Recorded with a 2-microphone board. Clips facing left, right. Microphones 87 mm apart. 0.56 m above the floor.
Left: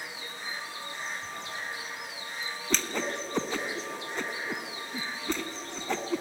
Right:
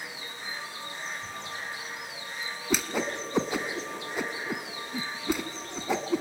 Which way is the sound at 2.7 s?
10° right (ahead or behind).